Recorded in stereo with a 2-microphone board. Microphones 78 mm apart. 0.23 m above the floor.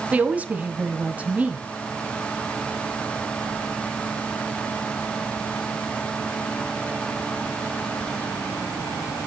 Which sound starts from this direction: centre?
A woman speaking, at 0.1 s.